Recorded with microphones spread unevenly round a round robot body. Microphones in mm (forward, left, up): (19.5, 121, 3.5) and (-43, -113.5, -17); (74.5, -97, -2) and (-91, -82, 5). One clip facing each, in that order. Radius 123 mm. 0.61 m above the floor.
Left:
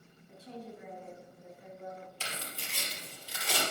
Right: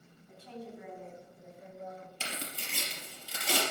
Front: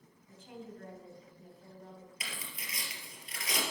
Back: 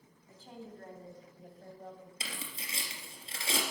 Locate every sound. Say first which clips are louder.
0.3 s a woman speaking: even, front 1 dB; 130° right, 3.5 m; by 2.1 s 145° right, 3 m
2.2 s tearing paper: right 2 dB, back 3 dB; 125° right, 3 m